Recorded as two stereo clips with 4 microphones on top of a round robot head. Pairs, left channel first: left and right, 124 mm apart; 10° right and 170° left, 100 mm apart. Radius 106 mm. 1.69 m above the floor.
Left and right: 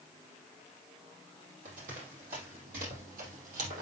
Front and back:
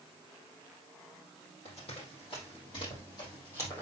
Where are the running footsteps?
55° right, 3.5 m; by 3.8 s 85° right, 3.5 m.